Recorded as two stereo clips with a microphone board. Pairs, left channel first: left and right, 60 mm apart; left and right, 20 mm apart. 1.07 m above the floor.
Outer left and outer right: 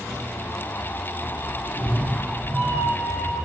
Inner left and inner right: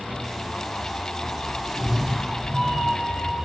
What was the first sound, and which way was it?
A cat meowing, 10° right (ahead or behind).